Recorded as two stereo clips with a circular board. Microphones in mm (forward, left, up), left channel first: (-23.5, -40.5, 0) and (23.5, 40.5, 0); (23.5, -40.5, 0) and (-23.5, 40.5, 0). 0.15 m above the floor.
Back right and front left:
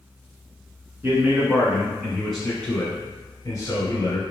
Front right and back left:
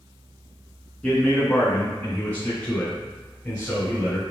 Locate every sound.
1.0 s a man speaking: 10° left, 1.5 m; by 4.2 s 125° right, 1.6 m